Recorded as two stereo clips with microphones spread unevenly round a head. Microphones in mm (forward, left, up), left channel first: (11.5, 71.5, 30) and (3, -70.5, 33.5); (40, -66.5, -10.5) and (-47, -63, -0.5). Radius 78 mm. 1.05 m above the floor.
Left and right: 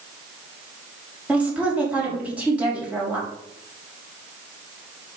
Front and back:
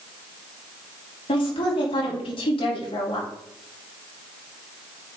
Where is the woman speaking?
10° right, 3 m.